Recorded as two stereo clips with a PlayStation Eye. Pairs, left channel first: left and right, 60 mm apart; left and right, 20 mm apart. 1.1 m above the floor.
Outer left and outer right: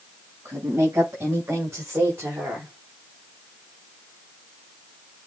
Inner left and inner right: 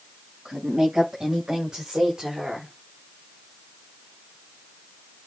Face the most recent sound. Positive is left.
turn(degrees=-35)  # may be behind; listen again after turning